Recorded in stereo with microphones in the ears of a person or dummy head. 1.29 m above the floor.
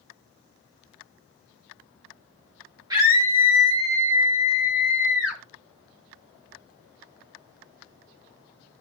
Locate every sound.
2.9 s a scream: 20° right (ahead or behind), 2.5 m; by 5.4 s 5° right (ahead or behind), 4.5 m